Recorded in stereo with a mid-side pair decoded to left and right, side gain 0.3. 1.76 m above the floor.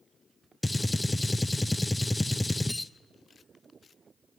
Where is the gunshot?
20° left, 0.7 m.